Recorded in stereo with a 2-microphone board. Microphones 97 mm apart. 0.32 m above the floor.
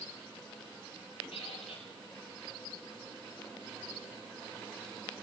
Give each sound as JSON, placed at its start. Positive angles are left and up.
{"t": 1.3, "sound": "a squeak", "side_deg": 85, "distance_m": 5.0}